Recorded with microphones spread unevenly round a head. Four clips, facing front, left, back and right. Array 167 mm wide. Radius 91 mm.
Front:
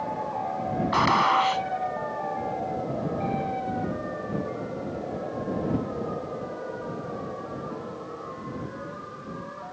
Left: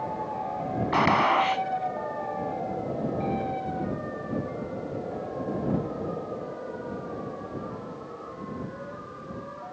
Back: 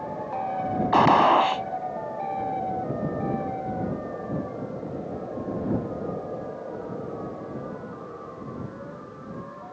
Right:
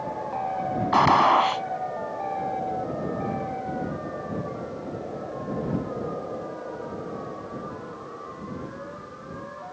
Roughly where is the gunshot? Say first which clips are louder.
Right 4 dB, back 5 dB; behind.